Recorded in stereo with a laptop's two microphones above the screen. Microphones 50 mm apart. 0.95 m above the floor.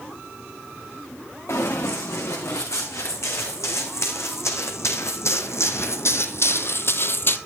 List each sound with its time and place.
1.5 s running footsteps: 75° left (ahead or behind), 4.5 m; by 7.4 s 45° left (ahead or behind), 1.3 m